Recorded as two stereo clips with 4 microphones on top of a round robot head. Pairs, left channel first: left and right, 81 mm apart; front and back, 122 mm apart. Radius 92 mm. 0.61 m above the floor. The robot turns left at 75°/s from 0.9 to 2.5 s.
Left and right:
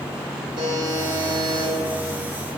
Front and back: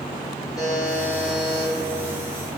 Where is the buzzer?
65° right, 2 m; by 1.7 s 125° right, 2 m.